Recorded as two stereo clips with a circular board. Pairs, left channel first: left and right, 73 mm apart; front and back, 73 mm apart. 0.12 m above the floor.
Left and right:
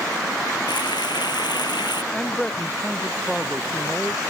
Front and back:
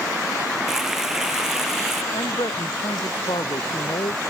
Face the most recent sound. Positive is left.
turn(degrees=10)